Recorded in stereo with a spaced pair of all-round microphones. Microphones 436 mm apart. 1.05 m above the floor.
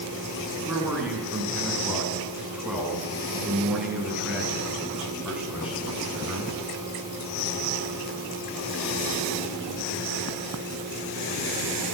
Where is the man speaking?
Centre (ahead or behind), 8.5 m.